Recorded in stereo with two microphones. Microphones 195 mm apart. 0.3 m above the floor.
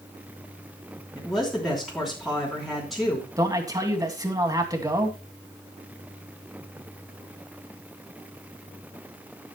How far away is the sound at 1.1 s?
About 3.5 m.